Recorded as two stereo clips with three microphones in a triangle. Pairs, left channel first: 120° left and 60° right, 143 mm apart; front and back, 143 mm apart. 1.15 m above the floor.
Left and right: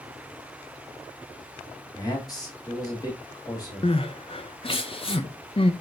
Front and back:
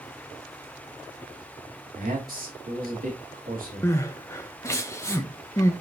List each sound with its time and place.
1.9 s a man speaking: straight behind, 2.5 m
3.8 s crying: 70° left, 0.7 m